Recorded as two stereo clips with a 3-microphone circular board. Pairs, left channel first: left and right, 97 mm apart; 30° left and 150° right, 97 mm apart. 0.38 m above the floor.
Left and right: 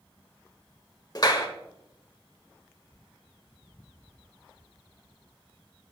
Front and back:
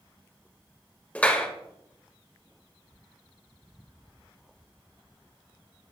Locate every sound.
1.1 s a clap: 95° left, 1.2 m